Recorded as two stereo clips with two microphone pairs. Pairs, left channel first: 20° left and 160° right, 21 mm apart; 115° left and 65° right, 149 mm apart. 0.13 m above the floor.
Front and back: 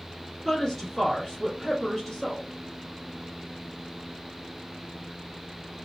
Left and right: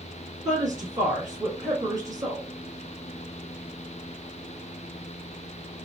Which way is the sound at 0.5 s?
45° right.